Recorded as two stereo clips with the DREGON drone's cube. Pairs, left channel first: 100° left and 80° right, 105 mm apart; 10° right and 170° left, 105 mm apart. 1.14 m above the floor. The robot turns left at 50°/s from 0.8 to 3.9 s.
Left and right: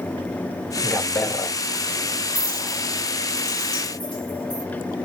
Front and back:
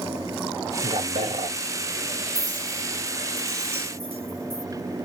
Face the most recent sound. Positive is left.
turn(degrees=145)